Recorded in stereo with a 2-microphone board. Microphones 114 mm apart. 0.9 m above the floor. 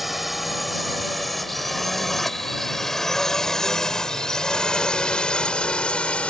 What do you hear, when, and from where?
0.0 s a drone: centre (ahead or behind); by 6.3 s 10° left (ahead or behind)